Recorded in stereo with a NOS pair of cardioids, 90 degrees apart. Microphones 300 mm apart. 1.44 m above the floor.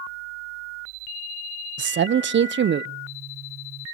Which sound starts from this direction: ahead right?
A man speaking, at 1.8 s.